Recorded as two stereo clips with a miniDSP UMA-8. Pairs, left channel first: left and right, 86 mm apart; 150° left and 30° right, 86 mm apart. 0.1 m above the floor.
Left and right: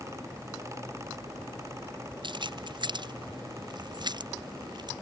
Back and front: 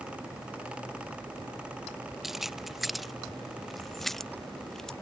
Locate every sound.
2.2 s keys jangling: 120° right; by 4.9 s 125° right